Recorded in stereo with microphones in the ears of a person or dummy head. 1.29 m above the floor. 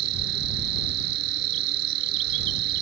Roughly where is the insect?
Right.